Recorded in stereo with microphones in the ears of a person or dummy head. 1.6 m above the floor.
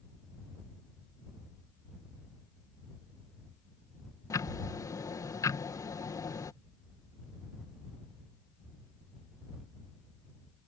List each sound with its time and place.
4.3 s ticking: 15° left (ahead or behind)